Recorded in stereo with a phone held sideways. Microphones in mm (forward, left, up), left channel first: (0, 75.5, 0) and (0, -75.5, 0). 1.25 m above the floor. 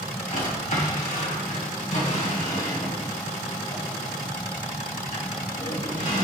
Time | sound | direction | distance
0.3 | a drawer | 60° left (ahead or behind) | 1.7 m